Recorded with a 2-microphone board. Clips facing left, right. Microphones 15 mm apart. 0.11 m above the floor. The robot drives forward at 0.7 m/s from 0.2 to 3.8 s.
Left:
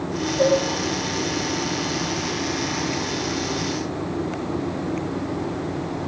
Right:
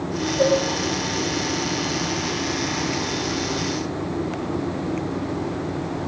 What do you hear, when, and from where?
0.4 s dishes clattering: 5° right (ahead or behind), 2 m